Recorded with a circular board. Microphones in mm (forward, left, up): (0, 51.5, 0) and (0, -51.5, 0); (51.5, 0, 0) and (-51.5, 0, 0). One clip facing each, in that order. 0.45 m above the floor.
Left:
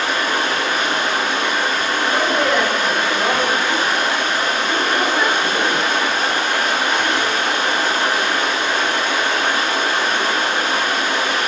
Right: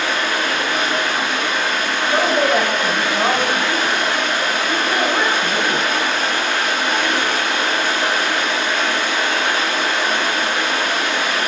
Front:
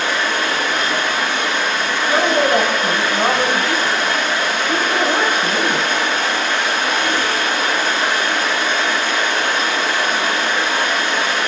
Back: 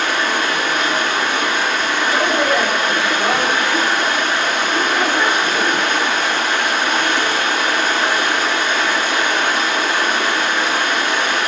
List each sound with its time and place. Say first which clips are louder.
0.0 s running water: left 1 dB, back 1 dB; 145° left, 2 m
2.1 s a woman speaking: right 3 dB, front 3 dB; 35° right, 1.4 m